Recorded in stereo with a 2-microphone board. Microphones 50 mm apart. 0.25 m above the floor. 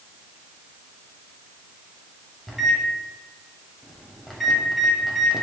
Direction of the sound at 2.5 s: Centre (ahead or behind).